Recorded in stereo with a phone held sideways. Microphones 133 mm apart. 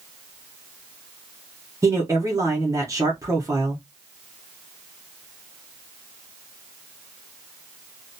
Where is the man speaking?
25° right (ahead or behind), 0.8 m.